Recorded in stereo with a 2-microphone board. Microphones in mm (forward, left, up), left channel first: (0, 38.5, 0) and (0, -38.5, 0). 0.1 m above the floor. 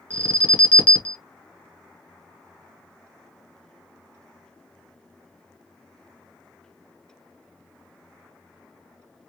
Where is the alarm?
20° left (ahead or behind), 1.3 m.